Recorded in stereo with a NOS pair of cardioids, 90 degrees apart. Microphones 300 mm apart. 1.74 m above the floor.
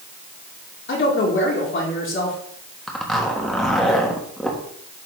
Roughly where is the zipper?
Ahead.